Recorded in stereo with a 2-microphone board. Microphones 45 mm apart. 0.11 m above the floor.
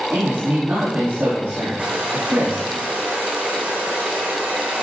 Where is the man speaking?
30° right (ahead or behind), 4 m.